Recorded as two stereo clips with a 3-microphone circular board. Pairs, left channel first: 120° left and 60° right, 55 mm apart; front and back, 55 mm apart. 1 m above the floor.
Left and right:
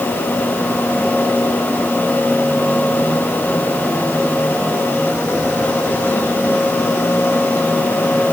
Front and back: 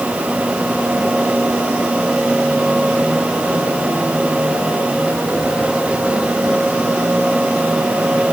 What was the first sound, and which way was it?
Only background noise.